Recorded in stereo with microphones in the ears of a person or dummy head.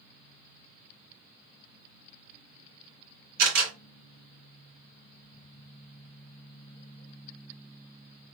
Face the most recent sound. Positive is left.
turn(degrees=-60)  # may be behind; listen again after turning